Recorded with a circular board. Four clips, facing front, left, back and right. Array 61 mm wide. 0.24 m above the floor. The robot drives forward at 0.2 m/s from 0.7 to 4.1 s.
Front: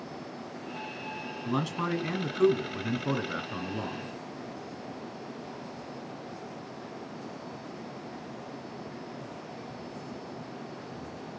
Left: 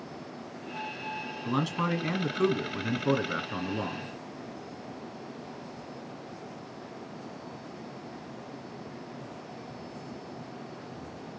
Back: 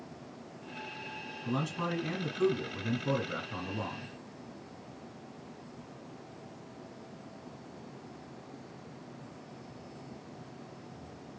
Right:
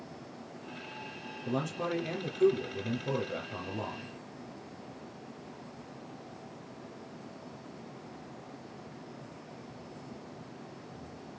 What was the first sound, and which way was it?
A man speaking, 75° left.